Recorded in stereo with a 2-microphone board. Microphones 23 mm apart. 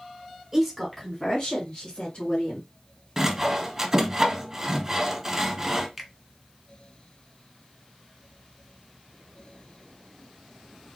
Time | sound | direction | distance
0.5 | a woman speaking | 15° right (ahead or behind) | 1.1 m
3.2 | sawing | 15° right (ahead or behind) | 0.9 m
6.0 | a finger snap | centre (ahead or behind) | 0.9 m